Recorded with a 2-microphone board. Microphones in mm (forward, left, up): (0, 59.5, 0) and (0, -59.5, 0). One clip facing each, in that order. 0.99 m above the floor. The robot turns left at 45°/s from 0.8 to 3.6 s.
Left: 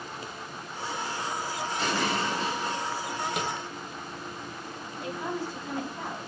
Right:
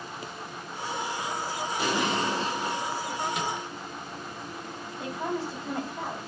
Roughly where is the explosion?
Ahead.